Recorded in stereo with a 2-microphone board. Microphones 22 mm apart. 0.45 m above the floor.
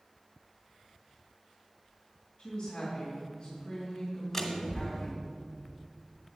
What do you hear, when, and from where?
2.4 s a woman speaking: 15° left (ahead or behind), 2.5 m
4.3 s a door slam: 15° left (ahead or behind), 1.6 m